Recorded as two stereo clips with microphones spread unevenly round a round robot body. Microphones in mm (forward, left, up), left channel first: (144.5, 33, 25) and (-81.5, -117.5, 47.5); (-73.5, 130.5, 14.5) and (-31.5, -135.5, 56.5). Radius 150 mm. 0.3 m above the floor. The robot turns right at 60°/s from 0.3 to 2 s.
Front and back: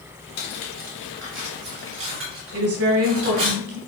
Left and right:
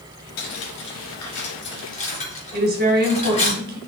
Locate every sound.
0.4 s cutlery clinking: 65° left, 3 m; by 3.5 s 165° left, 3 m
2.5 s a woman speaking: 135° right, 2 m